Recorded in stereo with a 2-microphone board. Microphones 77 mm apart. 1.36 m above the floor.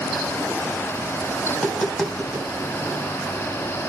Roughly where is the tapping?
Centre.